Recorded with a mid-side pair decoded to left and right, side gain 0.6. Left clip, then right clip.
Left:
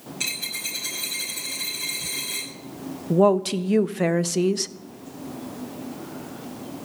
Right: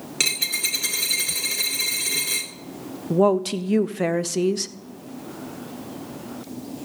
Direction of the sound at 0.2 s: 65° right.